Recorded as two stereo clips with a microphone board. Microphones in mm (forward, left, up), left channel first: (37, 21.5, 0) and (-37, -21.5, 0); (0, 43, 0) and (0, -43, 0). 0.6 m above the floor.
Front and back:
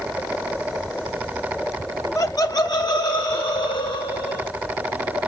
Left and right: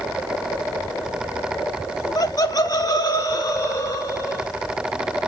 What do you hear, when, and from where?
2.1 s laughter: 70° left, 0.8 m; by 4.5 s 45° left, 2.5 m